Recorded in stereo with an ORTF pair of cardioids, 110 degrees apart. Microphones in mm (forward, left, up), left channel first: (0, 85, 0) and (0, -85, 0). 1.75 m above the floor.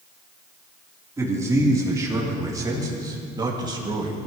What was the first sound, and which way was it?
A man speaking, 20° right.